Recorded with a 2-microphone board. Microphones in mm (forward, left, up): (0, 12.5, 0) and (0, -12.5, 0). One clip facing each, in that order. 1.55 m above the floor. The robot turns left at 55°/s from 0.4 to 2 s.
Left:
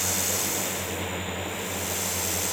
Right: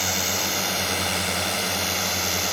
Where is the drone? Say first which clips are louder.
Right 4 dB; 30° right (ahead or behind); by 2.5 s 45° right (ahead or behind).